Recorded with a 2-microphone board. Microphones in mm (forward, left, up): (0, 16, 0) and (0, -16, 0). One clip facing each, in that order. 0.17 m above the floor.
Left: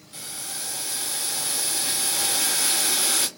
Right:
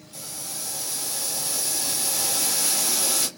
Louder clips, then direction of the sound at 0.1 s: Left 2 dB; 45° left (ahead or behind).